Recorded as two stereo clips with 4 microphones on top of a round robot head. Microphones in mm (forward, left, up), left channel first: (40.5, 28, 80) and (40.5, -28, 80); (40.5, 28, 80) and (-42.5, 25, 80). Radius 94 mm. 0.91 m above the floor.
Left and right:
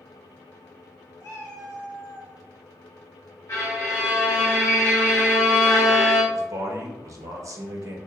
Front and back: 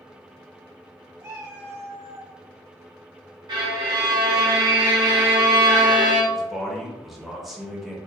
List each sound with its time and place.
1.2 s a cat meowing: 125° left, 1.6 m
3.5 s a violin: 150° left, 0.8 m
6.3 s a man speaking: 90° right, 1.1 m